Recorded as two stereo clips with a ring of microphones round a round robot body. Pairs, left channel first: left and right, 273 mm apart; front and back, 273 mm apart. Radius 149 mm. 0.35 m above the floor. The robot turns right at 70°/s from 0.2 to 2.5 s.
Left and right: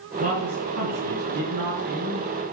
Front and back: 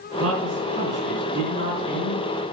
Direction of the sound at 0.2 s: 155° right.